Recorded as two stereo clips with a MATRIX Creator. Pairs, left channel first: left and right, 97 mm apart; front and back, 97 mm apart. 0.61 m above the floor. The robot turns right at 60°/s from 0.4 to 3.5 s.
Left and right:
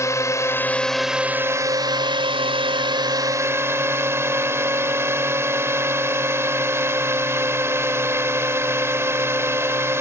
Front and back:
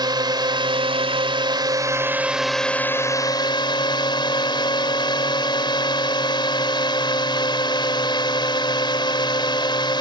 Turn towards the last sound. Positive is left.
turn(degrees=-30)